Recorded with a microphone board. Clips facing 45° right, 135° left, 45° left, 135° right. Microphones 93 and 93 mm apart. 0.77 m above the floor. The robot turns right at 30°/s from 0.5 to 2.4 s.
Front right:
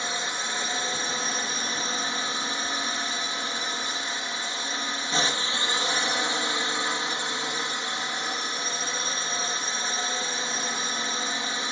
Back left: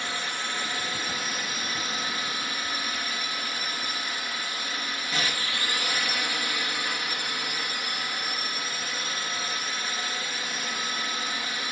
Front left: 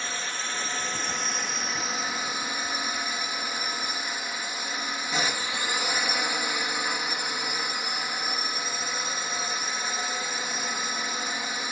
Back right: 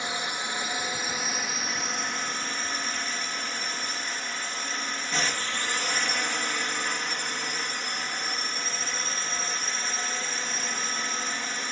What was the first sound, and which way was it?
A drone, 80° right.